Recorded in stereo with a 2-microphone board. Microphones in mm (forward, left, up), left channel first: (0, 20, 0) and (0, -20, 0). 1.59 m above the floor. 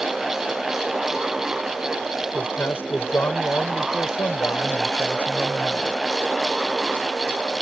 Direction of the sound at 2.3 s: 75° left (ahead or behind).